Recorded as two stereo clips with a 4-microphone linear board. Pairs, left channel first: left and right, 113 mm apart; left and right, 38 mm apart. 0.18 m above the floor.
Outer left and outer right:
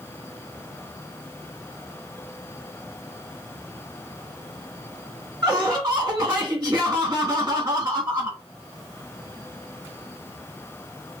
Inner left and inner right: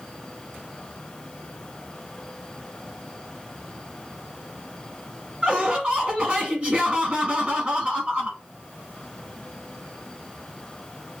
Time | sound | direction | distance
5.4 | laughter | 30° right (ahead or behind) | 1.1 m